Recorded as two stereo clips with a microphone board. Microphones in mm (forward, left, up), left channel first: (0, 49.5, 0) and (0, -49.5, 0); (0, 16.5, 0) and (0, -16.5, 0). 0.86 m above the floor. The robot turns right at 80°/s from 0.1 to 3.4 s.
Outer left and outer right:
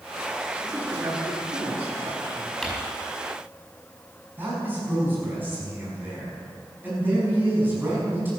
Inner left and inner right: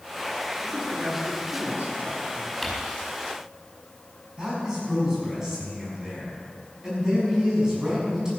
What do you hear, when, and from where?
0.6 s a man speaking: straight behind, 2.5 m; by 2.5 s 30° right, 2.5 m
2.6 s crumpling: 5° left (ahead or behind), 5 m; by 2.7 s 15° left (ahead or behind), 5 m
4.4 s a man speaking: 20° right (ahead or behind), 6 m